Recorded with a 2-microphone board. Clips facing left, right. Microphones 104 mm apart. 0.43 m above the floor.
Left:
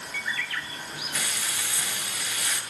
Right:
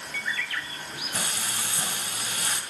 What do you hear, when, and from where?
1.1 s frying: 45° right (ahead or behind), 2.5 m